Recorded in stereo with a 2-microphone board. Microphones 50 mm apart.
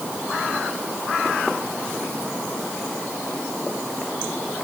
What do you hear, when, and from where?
Only background noise.